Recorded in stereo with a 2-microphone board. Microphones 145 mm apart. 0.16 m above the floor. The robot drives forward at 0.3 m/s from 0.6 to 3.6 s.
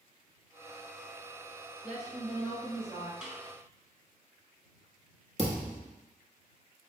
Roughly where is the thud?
Right.